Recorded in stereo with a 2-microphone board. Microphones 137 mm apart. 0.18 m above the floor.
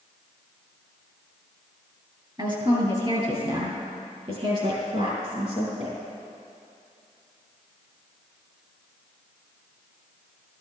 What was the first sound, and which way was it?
A woman speaking, 35° right (ahead or behind).